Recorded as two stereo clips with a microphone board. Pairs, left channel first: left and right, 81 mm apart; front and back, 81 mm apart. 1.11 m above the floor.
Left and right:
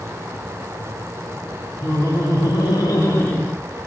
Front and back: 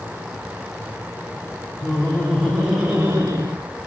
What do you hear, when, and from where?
1.8 s laughter: 65° left, 1.5 m; by 3.5 s 160° left, 0.8 m